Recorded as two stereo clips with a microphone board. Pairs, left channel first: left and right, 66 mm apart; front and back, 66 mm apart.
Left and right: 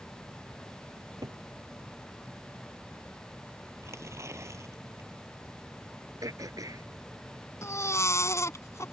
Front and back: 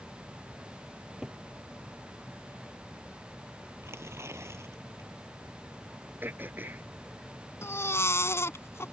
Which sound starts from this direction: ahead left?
A baby crying, at 7.6 s.